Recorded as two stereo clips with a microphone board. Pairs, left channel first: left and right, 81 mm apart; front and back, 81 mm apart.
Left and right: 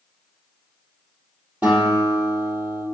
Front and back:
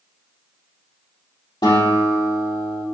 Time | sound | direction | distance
1.6 | a guitar | 25° right | 3.5 m